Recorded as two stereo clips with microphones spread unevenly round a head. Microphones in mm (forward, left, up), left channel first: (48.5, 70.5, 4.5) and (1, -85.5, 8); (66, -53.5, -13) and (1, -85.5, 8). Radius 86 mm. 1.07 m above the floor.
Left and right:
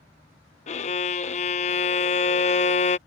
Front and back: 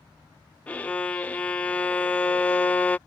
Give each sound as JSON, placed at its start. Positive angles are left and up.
{"t": 0.7, "sound": "a violin", "azimuth_deg": 65}